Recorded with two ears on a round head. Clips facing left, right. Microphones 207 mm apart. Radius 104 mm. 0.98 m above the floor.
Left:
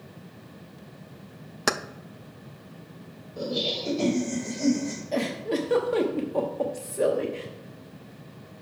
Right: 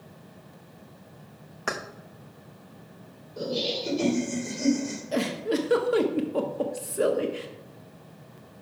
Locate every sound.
1.7 s keys jangling: 55° left (ahead or behind), 0.5 m
3.4 s laughter: 10° right (ahead or behind), 3.5 m
5.1 s a giggle: 10° right (ahead or behind), 0.8 m